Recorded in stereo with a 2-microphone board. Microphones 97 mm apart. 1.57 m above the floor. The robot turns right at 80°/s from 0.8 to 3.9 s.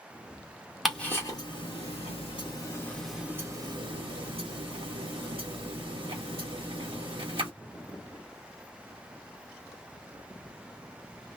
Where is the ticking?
Centre (ahead or behind), 1.4 m; by 7.5 s 60° right (ahead or behind), 1.4 m.